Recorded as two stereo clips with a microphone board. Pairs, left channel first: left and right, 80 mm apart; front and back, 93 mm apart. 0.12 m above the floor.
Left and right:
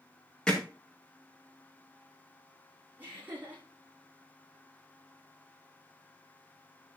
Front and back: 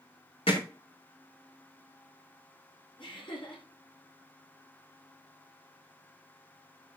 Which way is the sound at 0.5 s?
10° left.